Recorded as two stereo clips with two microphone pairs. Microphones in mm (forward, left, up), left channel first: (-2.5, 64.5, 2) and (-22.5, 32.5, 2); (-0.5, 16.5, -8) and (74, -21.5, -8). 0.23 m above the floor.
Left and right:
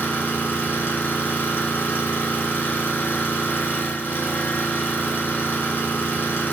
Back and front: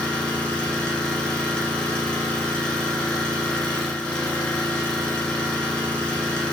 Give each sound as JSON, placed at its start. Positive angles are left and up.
{"t": 0.0, "sound": "an engine running", "azimuth_deg": 75, "distance_m": 0.7}